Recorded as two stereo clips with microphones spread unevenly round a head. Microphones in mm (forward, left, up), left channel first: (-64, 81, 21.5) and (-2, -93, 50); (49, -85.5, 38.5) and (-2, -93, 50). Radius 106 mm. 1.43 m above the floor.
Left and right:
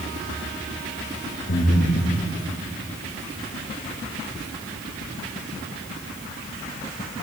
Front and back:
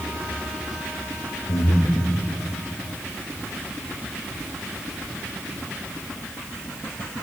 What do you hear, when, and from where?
1.5 s breathing: 50° left, 1.2 m